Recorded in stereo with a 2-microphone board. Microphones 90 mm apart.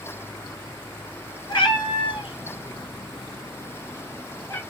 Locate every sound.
1.5 s a cat meowing: 60° left (ahead or behind), 1.2 m; by 4.6 s 20° left (ahead or behind), 1.1 m